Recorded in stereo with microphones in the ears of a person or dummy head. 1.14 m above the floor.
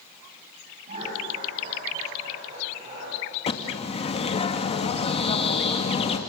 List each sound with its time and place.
0.9 s laughter: 50° right (ahead or behind), 8 m; by 3.2 s 40° right (ahead or behind), 9.5 m
3.5 s a bird: 40° left (ahead or behind), 1.8 m